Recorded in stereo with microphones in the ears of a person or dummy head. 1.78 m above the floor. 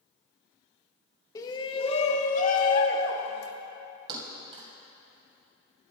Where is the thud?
30° right (ahead or behind), 2.5 m.